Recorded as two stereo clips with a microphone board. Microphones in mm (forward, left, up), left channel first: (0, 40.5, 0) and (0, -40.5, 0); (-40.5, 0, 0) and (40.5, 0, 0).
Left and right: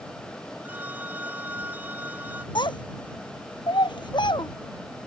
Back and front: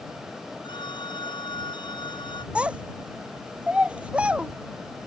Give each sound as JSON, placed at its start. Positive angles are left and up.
{"t": 0.6, "sound": "a phone ringing", "azimuth_deg": -160}
{"t": 2.5, "sound": "a child speaking", "azimuth_deg": 75}